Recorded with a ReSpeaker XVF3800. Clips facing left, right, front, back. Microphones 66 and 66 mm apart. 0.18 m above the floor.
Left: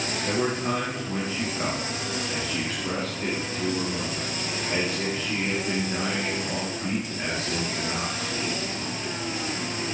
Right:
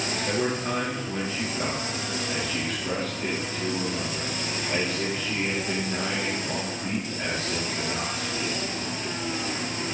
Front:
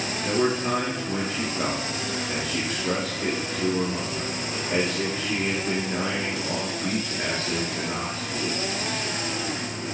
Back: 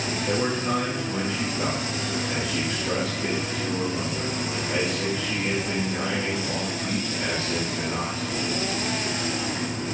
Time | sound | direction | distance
0.2 | a man speaking | 15° left | 3 m